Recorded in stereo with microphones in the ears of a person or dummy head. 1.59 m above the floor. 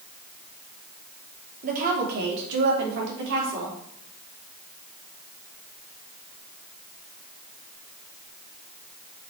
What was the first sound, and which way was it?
A woman speaking, 50° right (ahead or behind).